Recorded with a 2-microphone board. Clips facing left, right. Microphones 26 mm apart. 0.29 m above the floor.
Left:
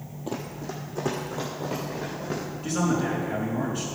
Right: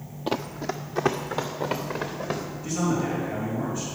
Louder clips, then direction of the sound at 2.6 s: Left 1 dB; 65° left (ahead or behind).